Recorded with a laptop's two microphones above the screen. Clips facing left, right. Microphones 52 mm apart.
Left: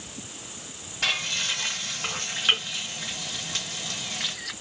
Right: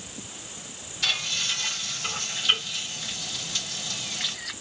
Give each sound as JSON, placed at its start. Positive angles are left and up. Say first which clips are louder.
{"t": 1.0, "sound": "frying", "louder": "left 1 dB", "side_deg": 50, "distance_m": 1.3}